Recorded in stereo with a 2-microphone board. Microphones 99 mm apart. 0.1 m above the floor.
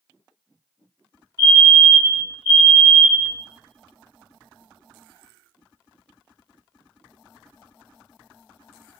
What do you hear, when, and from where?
1.4 s a fire alarm: 35° left (ahead or behind), 2.5 m